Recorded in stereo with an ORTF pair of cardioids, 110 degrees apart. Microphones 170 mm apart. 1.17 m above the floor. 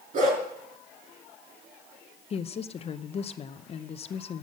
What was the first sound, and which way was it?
A dog barking, 50° right.